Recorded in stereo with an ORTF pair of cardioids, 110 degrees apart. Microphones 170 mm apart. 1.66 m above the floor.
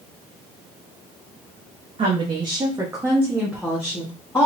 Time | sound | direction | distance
2.0 | a woman speaking | 35° right | 1.5 m